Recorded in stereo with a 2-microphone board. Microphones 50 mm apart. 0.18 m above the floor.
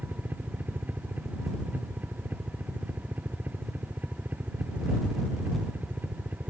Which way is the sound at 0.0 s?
35° right (ahead or behind).